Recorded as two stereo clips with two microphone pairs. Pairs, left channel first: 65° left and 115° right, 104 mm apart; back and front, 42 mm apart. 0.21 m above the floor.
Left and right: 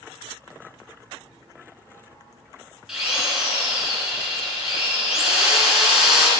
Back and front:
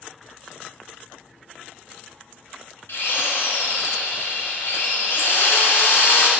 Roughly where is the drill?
Behind.